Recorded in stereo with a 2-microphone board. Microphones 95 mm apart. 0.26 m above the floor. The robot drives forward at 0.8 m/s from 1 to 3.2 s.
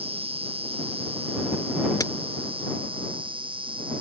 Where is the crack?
40° left (ahead or behind); by 2.1 s 35° left (ahead or behind).